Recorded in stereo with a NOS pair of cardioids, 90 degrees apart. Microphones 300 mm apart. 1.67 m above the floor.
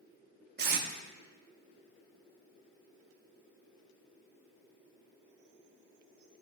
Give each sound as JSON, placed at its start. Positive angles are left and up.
{"t": 0.6, "sound": "tape being pulled", "azimuth_deg": -35, "distance_m": 1.1}